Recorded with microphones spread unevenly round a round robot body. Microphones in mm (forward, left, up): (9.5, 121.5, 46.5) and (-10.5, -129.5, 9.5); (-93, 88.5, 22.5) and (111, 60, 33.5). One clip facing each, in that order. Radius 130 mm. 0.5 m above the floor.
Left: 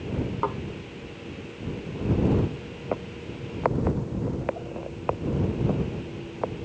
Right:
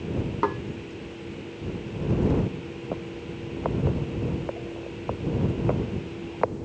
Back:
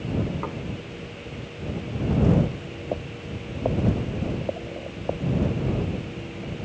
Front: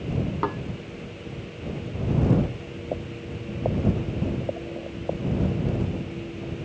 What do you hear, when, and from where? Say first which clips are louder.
0.4 s dishes clattering: right 3 dB, front 4 dB; 40° right